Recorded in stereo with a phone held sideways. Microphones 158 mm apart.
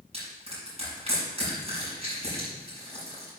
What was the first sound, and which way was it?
Crushing, 40° right (ahead or behind).